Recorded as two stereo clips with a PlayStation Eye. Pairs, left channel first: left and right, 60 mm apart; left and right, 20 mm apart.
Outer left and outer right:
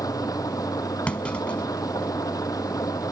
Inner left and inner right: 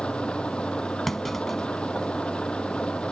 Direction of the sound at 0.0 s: 85° left.